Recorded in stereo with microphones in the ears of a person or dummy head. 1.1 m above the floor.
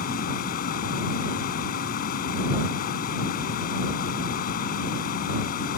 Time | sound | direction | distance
0.0 | a fan | 55° left (ahead or behind) | ?